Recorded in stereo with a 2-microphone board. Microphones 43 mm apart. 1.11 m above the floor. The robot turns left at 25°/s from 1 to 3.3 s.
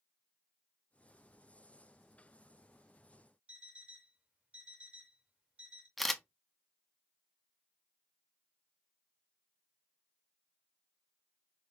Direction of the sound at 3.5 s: 30° right (ahead or behind).